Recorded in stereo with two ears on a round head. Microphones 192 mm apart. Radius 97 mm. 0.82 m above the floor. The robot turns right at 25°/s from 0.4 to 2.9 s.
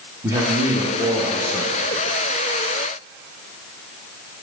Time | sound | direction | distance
0.2 | a man speaking | 20° right | 0.7 m